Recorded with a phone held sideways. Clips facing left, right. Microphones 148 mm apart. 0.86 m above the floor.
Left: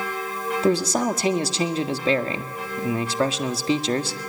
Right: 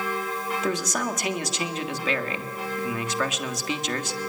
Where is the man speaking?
30° left (ahead or behind), 1.6 m.